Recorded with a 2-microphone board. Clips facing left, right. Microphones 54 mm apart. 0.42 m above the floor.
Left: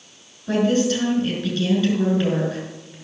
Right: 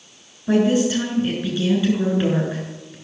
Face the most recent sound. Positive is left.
turn(degrees=-15)  # may be behind; listen again after turning